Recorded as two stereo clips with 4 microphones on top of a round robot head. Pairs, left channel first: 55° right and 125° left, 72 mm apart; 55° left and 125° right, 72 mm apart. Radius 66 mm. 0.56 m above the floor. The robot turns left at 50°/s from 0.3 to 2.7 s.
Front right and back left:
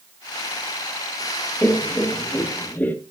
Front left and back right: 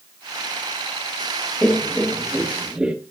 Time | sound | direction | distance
1.6 | laughter | 15° right | 0.9 m